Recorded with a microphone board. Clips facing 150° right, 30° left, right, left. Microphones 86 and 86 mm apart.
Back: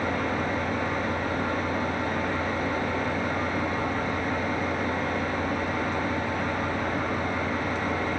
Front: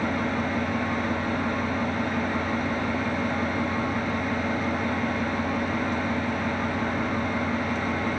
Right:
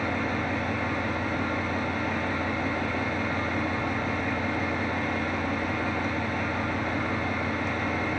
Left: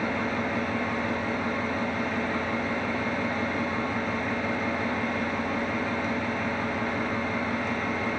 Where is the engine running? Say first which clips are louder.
Front 1 dB, even; 175° right, 4 m.